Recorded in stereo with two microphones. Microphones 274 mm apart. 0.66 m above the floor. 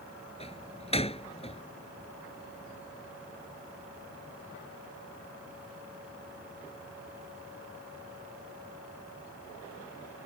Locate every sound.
0.4 s a door slam: 20° left (ahead or behind)